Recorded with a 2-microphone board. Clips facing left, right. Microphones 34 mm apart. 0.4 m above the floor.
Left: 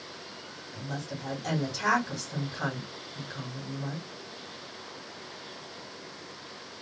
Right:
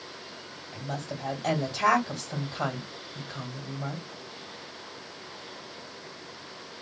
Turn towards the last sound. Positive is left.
turn(degrees=-50)  # may be behind; listen again after turning